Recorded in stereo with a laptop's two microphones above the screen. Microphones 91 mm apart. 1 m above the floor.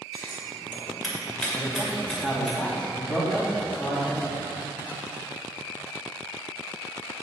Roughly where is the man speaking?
Centre.